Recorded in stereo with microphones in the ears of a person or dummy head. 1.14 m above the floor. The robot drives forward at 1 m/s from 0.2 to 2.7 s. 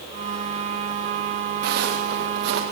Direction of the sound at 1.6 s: 60° right (ahead or behind).